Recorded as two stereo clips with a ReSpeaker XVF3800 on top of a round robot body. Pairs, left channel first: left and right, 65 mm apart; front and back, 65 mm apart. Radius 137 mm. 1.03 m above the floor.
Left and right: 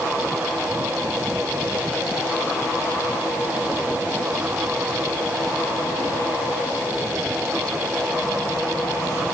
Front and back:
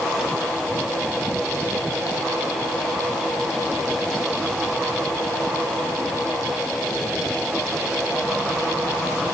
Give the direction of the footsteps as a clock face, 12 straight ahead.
I don't hear footsteps.